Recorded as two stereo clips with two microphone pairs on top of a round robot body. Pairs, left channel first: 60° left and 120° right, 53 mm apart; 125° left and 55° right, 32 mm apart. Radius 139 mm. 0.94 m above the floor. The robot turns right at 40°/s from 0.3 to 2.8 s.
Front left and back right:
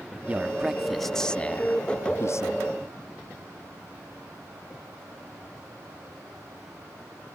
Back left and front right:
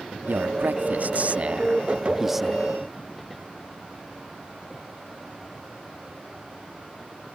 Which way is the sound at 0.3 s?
55° right.